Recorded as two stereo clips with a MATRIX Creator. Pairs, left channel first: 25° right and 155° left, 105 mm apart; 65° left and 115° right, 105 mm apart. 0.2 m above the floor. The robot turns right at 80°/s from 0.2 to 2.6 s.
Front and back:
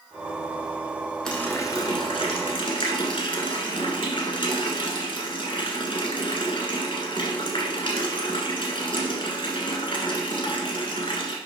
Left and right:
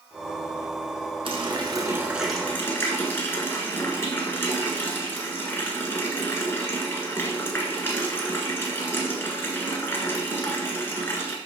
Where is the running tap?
105° right, 1.4 m; by 11.4 s straight ahead, 1.4 m.